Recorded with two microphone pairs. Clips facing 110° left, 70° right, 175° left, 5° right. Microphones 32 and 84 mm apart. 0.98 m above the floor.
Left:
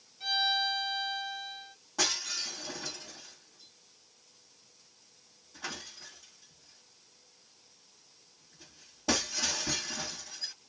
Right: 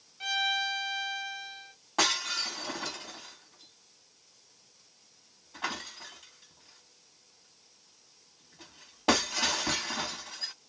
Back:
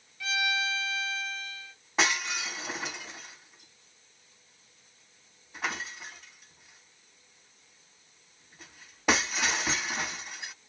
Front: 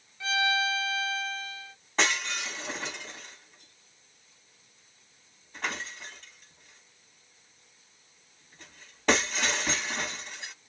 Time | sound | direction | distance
0.2 | a violin | 55° right | 1.2 m
2.0 | breaking glass | 100° right | 1.3 m